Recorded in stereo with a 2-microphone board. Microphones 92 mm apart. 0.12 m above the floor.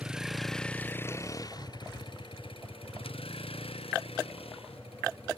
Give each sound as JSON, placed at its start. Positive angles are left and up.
{"t": 0.0, "sound": "a vehicle", "side_deg": -10}